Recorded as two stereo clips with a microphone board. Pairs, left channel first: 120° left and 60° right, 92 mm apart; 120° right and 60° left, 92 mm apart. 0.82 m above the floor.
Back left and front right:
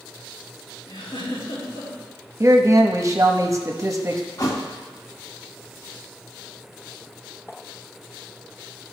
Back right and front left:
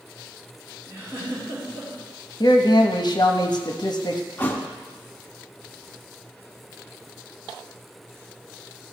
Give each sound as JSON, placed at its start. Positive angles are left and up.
{"t": 0.9, "sound": "a giggle", "azimuth_deg": 125, "distance_m": 4.0}
{"t": 2.4, "sound": "a man speaking", "azimuth_deg": -105, "distance_m": 0.8}
{"t": 4.4, "sound": "a thud", "azimuth_deg": 170, "distance_m": 0.9}